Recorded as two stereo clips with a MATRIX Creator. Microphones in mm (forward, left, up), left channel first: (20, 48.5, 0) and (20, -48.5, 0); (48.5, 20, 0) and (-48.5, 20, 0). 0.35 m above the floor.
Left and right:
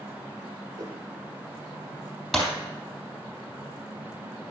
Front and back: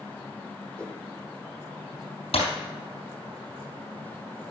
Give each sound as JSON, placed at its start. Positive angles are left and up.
{"t": 0.8, "sound": "a whoosh", "azimuth_deg": -75, "distance_m": 0.9}
{"t": 2.3, "sound": "breaking glass", "azimuth_deg": 5, "distance_m": 3.0}